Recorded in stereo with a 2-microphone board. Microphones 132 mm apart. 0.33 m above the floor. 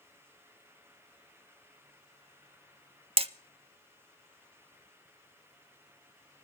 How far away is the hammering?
About 0.5 m.